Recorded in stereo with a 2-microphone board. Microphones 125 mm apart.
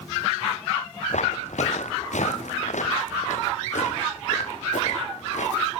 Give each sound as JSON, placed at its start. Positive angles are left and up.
{"t": 1.1, "sound": "footsteps", "side_deg": 70, "distance_m": 2.0}